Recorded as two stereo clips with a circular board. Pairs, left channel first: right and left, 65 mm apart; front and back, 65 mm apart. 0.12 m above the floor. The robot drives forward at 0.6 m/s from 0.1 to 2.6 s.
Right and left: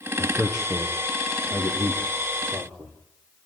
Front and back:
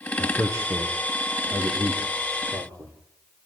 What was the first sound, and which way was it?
A man speaking, 165° left.